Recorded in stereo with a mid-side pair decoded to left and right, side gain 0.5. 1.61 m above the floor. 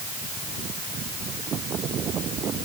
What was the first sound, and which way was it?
Only background noise.